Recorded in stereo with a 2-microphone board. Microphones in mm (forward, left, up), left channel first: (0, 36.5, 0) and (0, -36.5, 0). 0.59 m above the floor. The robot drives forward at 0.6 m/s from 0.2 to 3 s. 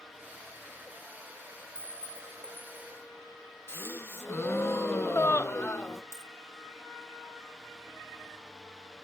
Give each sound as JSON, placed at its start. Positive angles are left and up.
{"t": 1.8, "sound": "a clink", "side_deg": -45, "distance_m": 1.3}
{"t": 3.7, "sound": "a gasp", "side_deg": 35, "distance_m": 0.6}
{"t": 6.1, "sound": "a dropped coin", "side_deg": 45, "distance_m": 0.7}